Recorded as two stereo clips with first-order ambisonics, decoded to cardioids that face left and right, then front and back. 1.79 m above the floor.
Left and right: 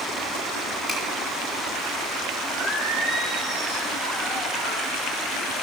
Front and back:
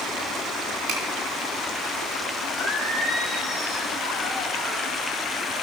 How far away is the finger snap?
About 3 m.